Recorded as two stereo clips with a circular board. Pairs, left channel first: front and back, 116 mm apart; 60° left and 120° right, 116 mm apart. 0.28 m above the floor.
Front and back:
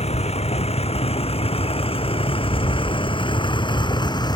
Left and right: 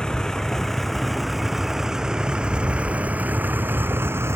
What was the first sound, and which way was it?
A vehicle, 25° right.